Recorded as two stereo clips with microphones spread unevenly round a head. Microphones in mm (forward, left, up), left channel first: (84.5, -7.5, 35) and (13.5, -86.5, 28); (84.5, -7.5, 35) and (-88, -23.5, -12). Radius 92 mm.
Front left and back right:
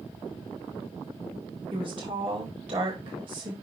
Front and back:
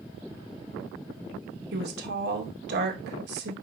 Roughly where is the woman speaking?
Behind.